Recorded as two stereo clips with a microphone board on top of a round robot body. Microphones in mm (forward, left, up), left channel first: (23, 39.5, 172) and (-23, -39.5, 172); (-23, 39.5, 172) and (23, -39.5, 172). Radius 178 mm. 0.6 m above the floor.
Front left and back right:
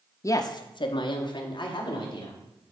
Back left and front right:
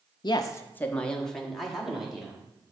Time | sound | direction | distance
0.2 | a woman speaking | 105° left | 0.7 m